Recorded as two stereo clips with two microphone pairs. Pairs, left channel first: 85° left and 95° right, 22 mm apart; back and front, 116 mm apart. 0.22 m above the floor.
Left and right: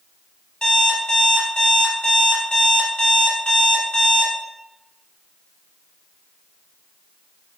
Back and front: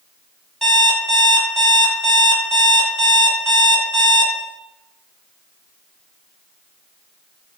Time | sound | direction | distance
0.6 | an alarm clock | 95° left | 1.0 m